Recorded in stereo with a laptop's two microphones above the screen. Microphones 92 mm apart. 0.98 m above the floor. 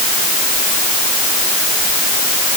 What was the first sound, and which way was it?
Only background noise.